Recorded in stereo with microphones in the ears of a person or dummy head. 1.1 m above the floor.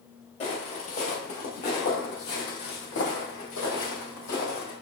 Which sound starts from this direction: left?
Footsteps, at 0.4 s.